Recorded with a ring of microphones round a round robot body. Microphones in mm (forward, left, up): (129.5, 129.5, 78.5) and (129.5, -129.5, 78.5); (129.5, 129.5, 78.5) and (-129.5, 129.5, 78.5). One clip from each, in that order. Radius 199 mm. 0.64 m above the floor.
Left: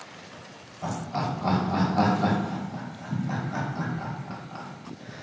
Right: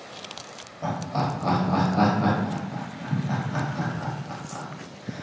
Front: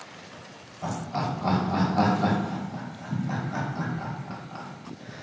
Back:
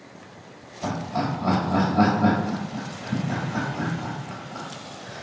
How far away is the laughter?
About 1.4 m.